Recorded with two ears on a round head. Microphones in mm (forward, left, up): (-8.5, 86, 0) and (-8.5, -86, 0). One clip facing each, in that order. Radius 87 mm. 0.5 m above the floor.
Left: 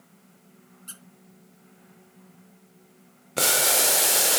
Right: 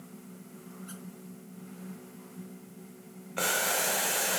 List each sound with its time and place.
0.9 s a squeak: 45° left (ahead or behind), 1.9 m
3.4 s boiling: 50° left (ahead or behind), 1.0 m